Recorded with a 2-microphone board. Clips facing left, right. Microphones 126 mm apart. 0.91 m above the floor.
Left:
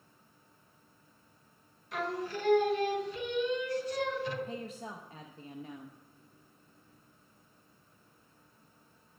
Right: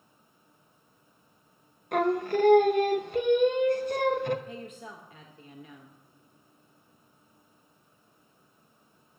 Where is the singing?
55° right (ahead or behind), 0.5 m.